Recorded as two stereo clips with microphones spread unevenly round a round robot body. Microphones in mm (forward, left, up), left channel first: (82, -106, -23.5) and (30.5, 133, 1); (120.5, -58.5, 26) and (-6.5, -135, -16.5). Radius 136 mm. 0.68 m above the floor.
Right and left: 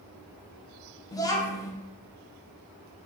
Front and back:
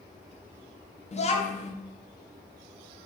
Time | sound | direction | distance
1.1 | a child speaking | 15° right | 0.6 m